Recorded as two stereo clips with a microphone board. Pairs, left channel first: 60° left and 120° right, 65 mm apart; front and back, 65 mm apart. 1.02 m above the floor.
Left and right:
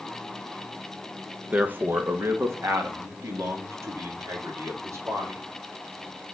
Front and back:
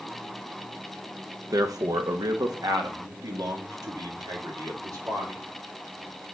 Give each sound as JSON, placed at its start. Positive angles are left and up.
{"t": 1.5, "sound": "a man speaking", "azimuth_deg": 175, "distance_m": 0.8}